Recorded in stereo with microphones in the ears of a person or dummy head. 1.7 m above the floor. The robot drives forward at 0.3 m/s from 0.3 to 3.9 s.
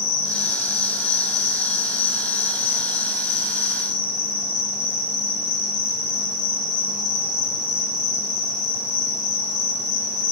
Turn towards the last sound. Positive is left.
turn(degrees=55)  # may be behind; listen again after turning